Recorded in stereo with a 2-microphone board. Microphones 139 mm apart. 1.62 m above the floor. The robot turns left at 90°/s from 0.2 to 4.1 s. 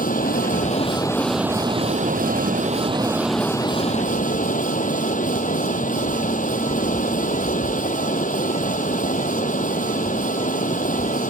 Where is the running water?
100° left; by 11.3 s 110° left.